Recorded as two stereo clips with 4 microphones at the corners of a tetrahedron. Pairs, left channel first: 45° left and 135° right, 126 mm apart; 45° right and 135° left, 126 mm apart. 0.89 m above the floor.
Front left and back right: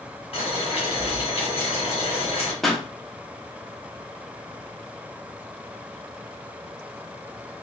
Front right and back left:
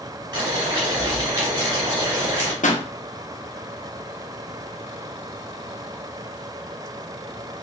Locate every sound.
0.3 s boiling: 85° left, 1.9 m
2.6 s a pop: 45° right, 0.5 m